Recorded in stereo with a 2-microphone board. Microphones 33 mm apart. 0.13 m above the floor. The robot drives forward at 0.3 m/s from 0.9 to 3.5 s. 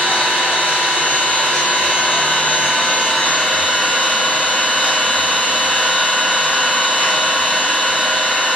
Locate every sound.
0.0 s an engine running: 80° left, 1.0 m; by 8.6 s 55° left (ahead or behind), 1.2 m